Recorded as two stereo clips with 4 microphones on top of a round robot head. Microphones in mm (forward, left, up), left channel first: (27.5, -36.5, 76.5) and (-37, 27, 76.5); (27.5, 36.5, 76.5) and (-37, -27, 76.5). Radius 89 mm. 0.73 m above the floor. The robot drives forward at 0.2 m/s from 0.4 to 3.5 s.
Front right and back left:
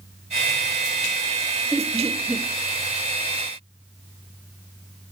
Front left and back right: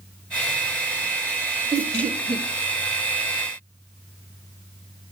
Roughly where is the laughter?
Behind right.